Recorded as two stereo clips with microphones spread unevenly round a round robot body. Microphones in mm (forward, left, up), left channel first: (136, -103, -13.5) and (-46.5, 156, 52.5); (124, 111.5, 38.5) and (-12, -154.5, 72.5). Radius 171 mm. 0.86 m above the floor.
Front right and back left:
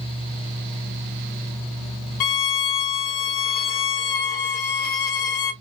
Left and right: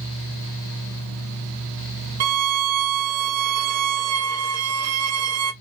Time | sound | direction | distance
2.2 | a violin | 75° right | 0.6 m